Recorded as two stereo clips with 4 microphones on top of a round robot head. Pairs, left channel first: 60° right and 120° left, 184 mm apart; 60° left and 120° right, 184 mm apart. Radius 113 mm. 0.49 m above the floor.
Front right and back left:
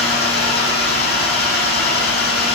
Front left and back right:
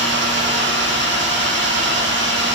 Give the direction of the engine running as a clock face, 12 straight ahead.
3 o'clock.